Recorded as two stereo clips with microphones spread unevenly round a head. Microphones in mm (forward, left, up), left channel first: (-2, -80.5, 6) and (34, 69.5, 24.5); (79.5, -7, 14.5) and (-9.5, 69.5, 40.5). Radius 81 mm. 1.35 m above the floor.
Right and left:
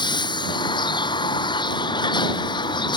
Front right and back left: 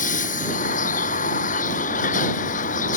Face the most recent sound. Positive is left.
turn(degrees=-40)